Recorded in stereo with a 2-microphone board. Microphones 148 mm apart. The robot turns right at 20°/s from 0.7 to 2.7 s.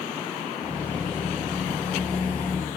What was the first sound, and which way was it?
Only background noise.